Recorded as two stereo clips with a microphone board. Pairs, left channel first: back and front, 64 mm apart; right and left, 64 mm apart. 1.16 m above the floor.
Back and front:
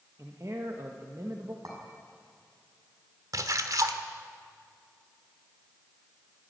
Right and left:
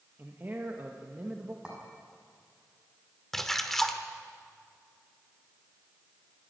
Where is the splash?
5° right, 1.3 m.